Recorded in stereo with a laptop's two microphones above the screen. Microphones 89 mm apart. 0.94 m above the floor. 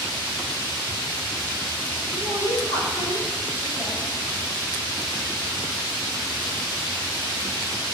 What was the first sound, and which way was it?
A woman speaking, 55° left (ahead or behind).